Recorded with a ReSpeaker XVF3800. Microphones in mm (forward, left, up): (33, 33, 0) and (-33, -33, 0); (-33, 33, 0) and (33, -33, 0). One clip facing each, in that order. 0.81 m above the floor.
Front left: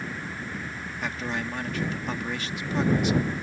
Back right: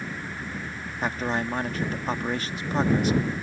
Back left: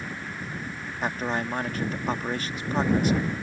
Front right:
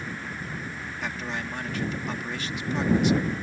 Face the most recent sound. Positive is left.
turn(degrees=180)